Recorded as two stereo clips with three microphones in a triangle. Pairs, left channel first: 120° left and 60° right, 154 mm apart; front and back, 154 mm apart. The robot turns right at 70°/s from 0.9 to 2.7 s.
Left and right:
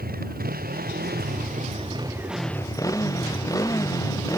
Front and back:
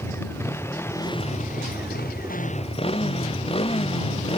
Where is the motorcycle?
75° right; by 4.4 s 50° left.